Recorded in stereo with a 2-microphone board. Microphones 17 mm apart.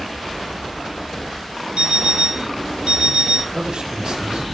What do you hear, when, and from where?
1.8 s an alarm clock: 65° right (ahead or behind), 5 m
3.5 s a man speaking: 65° right (ahead or behind), 9 m